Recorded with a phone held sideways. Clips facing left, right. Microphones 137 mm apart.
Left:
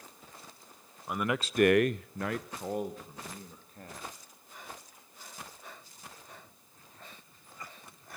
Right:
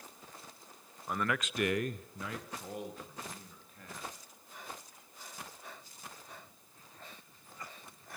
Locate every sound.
1.1 s a man speaking: 5° left (ahead or behind), 0.9 m; by 4.1 s 40° left (ahead or behind), 3.5 m